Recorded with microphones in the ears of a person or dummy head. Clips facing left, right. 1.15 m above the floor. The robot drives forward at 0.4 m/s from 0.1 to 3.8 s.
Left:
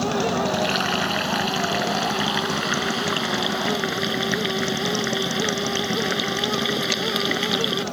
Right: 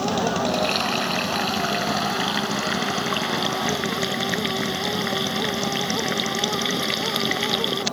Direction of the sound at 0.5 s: 10° left (ahead or behind).